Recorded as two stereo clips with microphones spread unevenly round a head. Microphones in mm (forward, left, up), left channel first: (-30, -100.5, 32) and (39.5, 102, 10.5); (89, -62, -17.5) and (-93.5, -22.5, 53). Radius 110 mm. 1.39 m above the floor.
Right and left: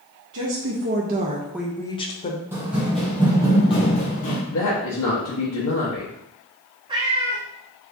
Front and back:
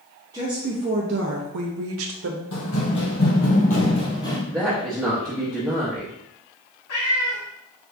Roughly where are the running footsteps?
Ahead.